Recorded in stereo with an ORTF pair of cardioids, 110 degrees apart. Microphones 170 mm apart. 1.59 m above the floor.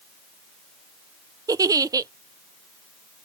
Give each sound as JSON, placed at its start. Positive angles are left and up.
{"t": 1.5, "sound": "a giggle", "azimuth_deg": -20}